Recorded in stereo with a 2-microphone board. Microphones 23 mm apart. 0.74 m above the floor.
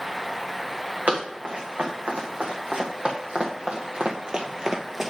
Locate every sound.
1.1 s running footsteps: 80° right, 3.5 m; by 5.1 s 10° right (ahead or behind), 0.9 m